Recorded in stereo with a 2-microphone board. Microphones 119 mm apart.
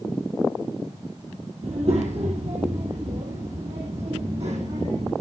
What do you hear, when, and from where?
1.6 s a child speaking: 65° right (ahead or behind), 2 m; by 5.1 s 70° right (ahead or behind), 4 m